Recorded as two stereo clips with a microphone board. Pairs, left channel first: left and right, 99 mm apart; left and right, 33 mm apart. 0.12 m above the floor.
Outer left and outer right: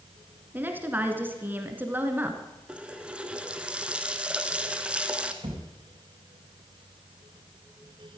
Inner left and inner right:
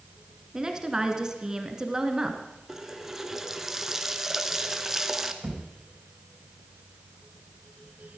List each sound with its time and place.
0.5 s a woman speaking: 20° right (ahead or behind), 1.5 m
2.7 s a running tap: 10° right (ahead or behind), 1.0 m
5.4 s a thud: 65° right (ahead or behind), 4 m